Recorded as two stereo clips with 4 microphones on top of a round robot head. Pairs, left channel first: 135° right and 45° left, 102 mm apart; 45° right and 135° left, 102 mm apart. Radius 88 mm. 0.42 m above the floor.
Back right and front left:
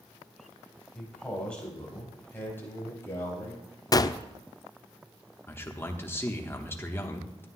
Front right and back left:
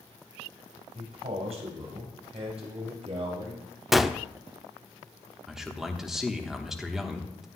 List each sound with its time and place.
0.9 s a man speaking: 135° left, 4 m; by 3.7 s 165° left, 4.5 m
3.9 s a gunshot: 135° right, 0.5 m
5.5 s a man speaking: 145° right, 1.1 m